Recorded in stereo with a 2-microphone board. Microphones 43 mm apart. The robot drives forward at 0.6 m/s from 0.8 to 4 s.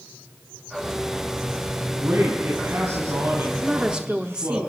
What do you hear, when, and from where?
1.9 s a man speaking: 65° right (ahead or behind), 4.5 m; by 4.6 s 75° right (ahead or behind), 4.5 m
3.6 s a woman speaking: 20° right (ahead or behind), 0.8 m